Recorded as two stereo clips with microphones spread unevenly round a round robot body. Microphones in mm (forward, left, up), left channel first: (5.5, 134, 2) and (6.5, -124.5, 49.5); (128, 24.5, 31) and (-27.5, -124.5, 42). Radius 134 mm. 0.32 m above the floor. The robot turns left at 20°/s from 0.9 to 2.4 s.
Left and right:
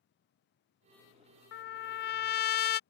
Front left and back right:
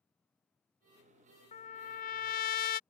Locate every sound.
1.5 s a trumpet: 85° left; by 2.8 s 70° left